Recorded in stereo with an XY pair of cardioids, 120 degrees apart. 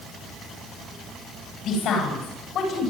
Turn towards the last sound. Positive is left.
turn(degrees=60)